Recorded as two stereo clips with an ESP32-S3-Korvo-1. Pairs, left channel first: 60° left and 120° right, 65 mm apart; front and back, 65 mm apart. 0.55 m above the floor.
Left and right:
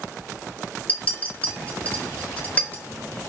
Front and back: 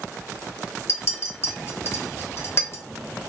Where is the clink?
5° left, 0.6 m.